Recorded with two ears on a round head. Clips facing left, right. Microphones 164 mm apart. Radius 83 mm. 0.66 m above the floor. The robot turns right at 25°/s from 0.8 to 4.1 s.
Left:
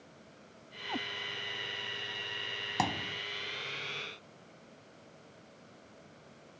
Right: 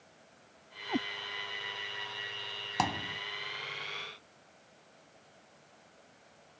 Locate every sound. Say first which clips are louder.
0.9 s a cat meowing: right 6 dB; 30° right (ahead or behind); by 1.1 s 35° right (ahead or behind)
2.8 s a thud: right 1 dB; 5° left (ahead or behind); by 3.2 s 5° right (ahead or behind)